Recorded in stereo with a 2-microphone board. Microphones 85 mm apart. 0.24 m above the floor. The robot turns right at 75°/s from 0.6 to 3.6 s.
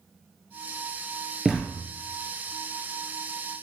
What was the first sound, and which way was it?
A thud, 5° right (ahead or behind).